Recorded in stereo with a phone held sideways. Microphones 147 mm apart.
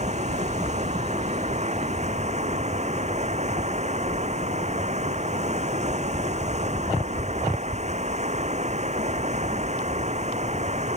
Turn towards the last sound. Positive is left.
turn(degrees=-50)  # may be behind; listen again after turning